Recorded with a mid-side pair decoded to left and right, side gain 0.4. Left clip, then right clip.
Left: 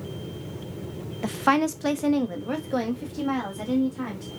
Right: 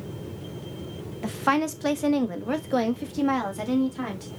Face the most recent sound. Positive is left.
turn(degrees=-50)